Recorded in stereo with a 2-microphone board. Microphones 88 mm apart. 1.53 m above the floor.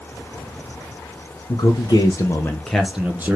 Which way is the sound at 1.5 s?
55° left (ahead or behind).